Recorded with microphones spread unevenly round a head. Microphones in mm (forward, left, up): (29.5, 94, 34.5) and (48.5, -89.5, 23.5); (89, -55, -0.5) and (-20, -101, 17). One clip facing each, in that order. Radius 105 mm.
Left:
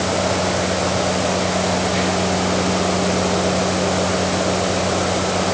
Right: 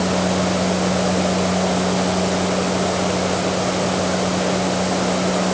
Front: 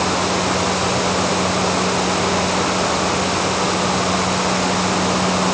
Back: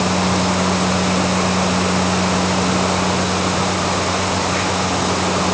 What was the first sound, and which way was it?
Only background noise.